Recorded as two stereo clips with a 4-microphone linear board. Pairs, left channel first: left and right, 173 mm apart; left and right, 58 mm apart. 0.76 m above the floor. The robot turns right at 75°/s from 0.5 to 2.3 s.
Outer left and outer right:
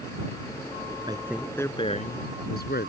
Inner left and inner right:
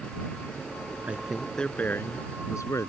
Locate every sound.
1.1 s a man speaking: 25° right; by 2.9 s 65° left